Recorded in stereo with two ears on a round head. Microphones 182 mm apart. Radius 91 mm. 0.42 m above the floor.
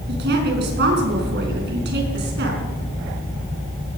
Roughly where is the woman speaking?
Right.